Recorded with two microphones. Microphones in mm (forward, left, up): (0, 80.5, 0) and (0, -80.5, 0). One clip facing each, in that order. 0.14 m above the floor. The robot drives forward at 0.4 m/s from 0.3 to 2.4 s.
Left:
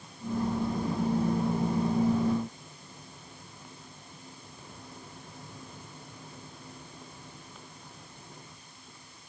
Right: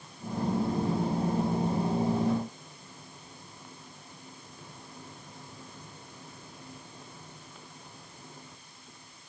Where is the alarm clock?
No alarm clock in this recording.